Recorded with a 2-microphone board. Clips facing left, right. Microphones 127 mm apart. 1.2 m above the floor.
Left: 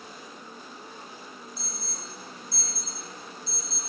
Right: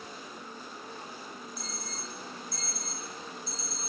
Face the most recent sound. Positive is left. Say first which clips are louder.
# even
turn(degrees=35)  # may be behind; listen again after turning